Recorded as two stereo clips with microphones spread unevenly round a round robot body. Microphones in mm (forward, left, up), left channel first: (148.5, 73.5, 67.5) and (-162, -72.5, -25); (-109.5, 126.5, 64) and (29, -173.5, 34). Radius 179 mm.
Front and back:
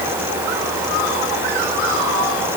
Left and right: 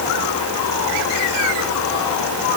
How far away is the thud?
No thud in this recording.